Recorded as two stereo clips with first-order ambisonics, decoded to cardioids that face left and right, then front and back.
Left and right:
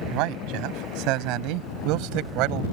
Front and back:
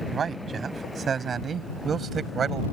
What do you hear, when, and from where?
0.1 s a man speaking: 115° right